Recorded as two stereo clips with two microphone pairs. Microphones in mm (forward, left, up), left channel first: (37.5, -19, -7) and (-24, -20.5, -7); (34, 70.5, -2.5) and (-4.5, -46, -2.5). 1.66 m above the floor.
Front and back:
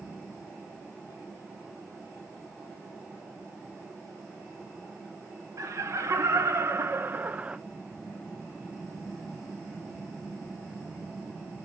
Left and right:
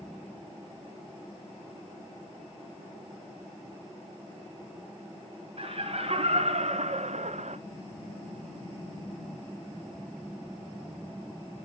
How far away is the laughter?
About 1.4 m.